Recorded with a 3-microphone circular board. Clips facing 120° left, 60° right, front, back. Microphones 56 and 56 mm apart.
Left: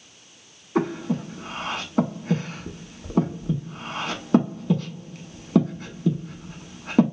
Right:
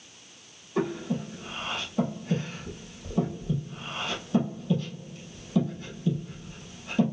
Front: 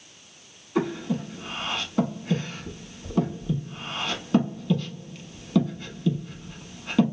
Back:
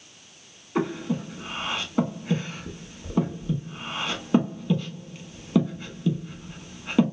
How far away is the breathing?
About 0.7 m.